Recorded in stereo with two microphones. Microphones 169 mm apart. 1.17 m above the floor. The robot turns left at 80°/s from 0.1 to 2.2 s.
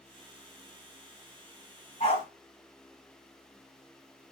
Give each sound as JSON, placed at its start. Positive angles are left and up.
{"t": 2.0, "sound": "a dog barking", "side_deg": 45, "distance_m": 2.0}